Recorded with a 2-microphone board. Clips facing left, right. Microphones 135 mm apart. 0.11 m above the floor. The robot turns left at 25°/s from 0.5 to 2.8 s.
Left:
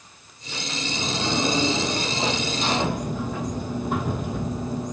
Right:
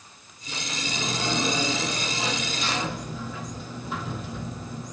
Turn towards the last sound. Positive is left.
turn(degrees=120)